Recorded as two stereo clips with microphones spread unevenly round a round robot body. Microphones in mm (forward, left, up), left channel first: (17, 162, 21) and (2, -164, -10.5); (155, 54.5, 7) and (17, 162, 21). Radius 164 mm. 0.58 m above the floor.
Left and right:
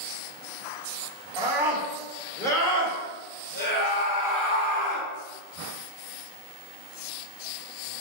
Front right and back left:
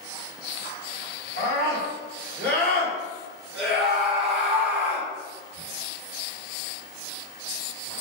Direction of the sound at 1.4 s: 170° right.